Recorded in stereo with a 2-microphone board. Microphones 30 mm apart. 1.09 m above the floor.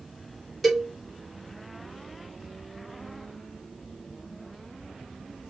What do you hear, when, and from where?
0.6 s a cowbell: 5° right (ahead or behind), 3.5 m